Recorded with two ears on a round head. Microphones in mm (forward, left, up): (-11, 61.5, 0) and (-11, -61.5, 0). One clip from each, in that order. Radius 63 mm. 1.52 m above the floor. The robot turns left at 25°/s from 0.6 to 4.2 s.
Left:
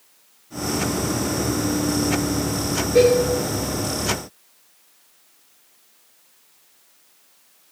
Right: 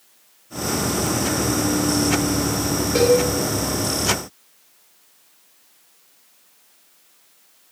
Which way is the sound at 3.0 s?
75° right (ahead or behind).